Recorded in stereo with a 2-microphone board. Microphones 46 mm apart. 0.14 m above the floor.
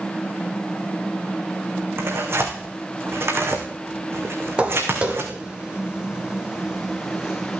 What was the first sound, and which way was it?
Tearing paper, 60° right (ahead or behind).